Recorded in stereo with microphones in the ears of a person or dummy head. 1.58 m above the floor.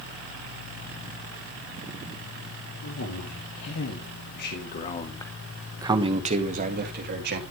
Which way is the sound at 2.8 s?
80° left.